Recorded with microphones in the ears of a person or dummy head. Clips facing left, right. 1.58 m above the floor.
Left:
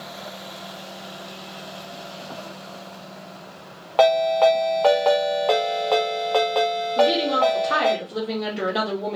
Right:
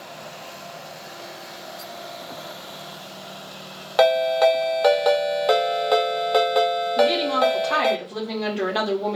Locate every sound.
4.0 s a ringtone: 20° right (ahead or behind), 1.2 m
7.0 s a woman speaking: 5° left (ahead or behind), 2.5 m